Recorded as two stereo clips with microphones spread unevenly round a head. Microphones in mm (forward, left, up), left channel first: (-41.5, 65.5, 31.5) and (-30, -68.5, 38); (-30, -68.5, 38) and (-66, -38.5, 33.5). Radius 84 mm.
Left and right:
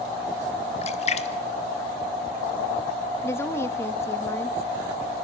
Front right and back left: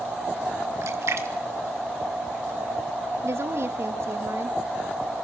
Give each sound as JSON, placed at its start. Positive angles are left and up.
{"t": 0.8, "sound": "a splash", "azimuth_deg": 130, "distance_m": 1.6}
{"t": 3.2, "sound": "a woman speaking", "azimuth_deg": 165, "distance_m": 1.6}